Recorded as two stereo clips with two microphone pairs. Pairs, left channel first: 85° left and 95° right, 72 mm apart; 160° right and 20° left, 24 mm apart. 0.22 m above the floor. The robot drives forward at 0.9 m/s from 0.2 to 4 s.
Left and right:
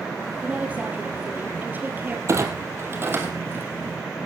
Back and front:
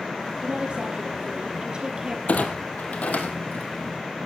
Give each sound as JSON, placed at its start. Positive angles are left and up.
{"t": 0.4, "sound": "a woman speaking", "azimuth_deg": -25, "distance_m": 5.5}
{"t": 2.3, "sound": "a clunk", "azimuth_deg": -145, "distance_m": 2.5}